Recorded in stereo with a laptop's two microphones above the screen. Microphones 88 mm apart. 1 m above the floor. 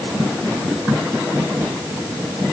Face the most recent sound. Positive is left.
No sound to turn to.